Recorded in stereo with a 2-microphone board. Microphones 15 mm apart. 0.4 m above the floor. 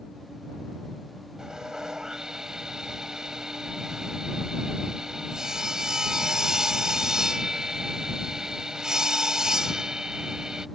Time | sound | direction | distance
1.4 | sawing | 50° right (ahead or behind) | ?